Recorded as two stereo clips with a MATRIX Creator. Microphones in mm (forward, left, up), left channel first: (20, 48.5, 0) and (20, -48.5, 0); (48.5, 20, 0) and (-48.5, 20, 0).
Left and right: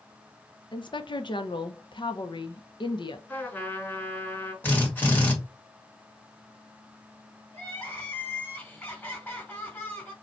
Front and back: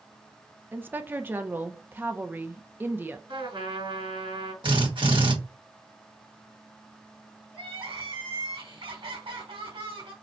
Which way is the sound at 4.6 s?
160° left.